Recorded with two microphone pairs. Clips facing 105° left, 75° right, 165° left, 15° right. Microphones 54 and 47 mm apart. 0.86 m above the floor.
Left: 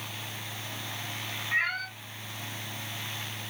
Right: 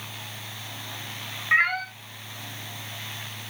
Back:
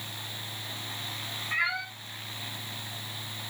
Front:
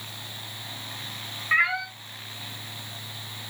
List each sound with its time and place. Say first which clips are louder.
1.5 s a cat meowing: right 7 dB, front 7 dB; 60° right, 0.7 m